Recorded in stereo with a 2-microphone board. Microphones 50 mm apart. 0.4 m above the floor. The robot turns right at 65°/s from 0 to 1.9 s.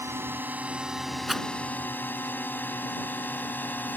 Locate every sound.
0.0 s a drone: 60° right (ahead or behind); by 4.0 s 40° left (ahead or behind)
1.3 s a rattle: centre (ahead or behind); by 1.5 s 15° right (ahead or behind)